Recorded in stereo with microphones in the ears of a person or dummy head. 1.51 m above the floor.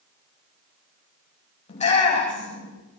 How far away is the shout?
About 9.5 m.